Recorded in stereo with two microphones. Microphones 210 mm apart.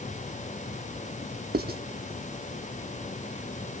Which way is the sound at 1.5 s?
50° right (ahead or behind).